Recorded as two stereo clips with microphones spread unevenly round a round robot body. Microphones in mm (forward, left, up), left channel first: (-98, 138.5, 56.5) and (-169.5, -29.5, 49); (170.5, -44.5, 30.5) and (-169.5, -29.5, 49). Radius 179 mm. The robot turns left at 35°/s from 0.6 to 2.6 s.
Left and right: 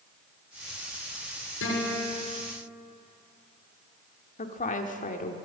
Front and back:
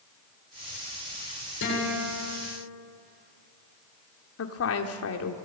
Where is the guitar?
55° left, 8 m; by 2.4 s 30° left, 8 m.